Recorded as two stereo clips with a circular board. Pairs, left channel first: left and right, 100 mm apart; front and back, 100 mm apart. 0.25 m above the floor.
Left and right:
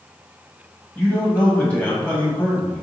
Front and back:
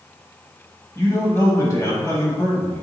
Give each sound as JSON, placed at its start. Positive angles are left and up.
{"t": 0.9, "sound": "a man speaking", "azimuth_deg": 25, "distance_m": 1.1}